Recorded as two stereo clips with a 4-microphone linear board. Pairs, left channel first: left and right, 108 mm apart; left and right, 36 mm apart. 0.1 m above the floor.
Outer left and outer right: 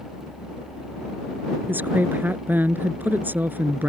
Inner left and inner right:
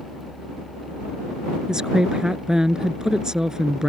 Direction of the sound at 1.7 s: 20° right (ahead or behind).